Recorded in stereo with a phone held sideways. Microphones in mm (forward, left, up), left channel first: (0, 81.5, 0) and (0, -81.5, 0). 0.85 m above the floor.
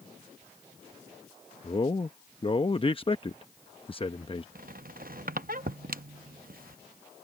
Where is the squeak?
60° right (ahead or behind).